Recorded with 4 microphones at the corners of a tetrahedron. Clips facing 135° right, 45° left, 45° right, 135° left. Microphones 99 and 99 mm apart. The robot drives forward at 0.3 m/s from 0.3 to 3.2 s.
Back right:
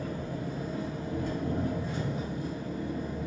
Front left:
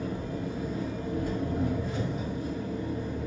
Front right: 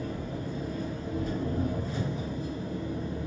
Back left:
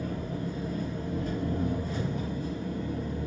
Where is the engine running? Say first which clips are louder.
Front left 2 dB, back left 1 dB; 115° left, 1.6 m; by 3.3 s 140° left, 2 m.